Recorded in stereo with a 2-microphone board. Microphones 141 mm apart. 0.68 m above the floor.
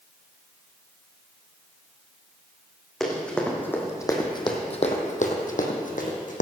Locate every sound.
3.0 s running footsteps: 5° left (ahead or behind), 3 m; by 6.4 s 65° left (ahead or behind), 2.5 m